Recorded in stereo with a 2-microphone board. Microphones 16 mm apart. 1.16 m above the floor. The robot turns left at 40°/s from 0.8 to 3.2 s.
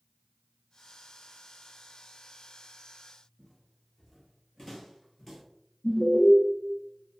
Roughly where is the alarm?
Left.